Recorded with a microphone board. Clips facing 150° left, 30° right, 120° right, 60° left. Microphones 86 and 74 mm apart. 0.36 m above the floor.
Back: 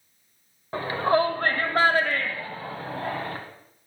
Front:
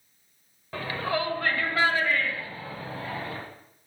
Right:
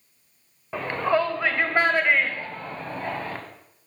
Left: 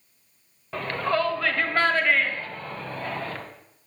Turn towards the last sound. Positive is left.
turn(degrees=170)